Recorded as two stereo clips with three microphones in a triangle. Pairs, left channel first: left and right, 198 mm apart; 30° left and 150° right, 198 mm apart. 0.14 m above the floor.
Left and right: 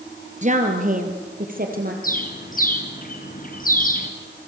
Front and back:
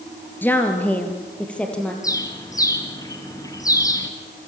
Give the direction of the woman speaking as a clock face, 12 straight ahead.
2 o'clock.